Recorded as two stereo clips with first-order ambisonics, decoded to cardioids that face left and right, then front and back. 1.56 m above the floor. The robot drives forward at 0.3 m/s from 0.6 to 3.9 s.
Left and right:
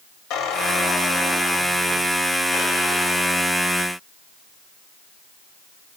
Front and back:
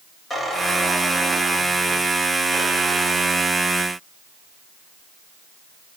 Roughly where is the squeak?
Left.